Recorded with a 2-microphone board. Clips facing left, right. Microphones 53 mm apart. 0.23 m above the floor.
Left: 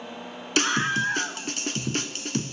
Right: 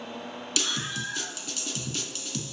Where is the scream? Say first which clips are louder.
Left 9 dB; 50° left (ahead or behind), 2.5 m.